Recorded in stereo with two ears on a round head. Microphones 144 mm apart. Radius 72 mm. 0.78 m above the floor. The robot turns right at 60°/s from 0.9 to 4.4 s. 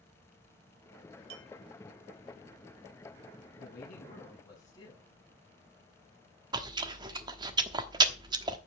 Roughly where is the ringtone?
I don't hear a ringtone.